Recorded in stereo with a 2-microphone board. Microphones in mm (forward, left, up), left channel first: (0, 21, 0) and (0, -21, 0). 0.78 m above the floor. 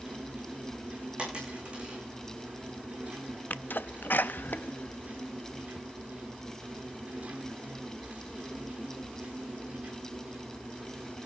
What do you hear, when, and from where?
0.0 s an insect: 35° right (ahead or behind), 8 m
1.2 s a dropped coin: 25° right (ahead or behind), 10 m
3.5 s a sneeze: 50° left (ahead or behind), 0.6 m